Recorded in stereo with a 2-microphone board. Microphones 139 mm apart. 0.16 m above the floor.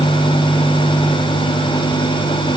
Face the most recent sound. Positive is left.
No sound to turn to.